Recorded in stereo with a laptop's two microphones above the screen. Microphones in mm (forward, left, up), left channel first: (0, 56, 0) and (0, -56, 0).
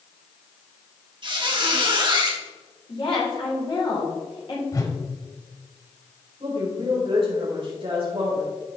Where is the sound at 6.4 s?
55° right (ahead or behind), 3.5 m.